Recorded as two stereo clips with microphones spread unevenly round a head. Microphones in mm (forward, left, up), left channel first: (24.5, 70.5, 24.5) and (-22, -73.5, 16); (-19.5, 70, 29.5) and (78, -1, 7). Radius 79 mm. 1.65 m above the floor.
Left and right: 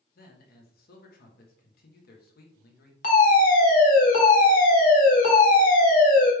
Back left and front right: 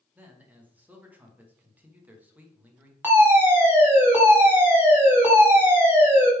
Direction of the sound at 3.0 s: 35° left.